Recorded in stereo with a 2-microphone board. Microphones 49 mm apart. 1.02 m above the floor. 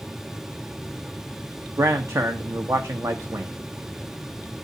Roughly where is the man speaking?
Right.